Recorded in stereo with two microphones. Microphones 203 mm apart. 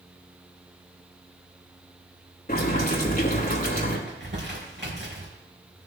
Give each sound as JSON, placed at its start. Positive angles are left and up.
{"t": 2.5, "sound": "boiling", "side_deg": 45, "distance_m": 2.5}
{"t": 4.1, "sound": "crumpling", "side_deg": -60, "distance_m": 3.0}